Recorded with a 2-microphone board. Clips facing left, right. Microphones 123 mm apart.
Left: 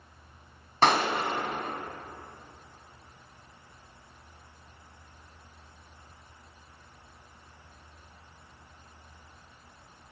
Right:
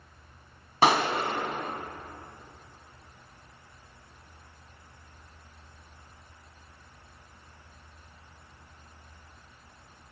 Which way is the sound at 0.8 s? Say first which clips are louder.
Right 1 dB; 10° right (ahead or behind).